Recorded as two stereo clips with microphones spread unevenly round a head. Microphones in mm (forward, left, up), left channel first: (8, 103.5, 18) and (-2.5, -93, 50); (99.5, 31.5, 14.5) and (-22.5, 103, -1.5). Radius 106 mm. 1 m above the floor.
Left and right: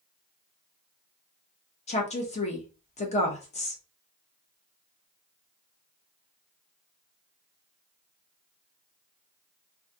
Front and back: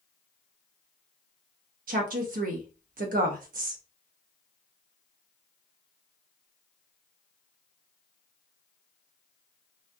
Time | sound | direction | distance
1.9 | a woman speaking | 140° left | 1.0 m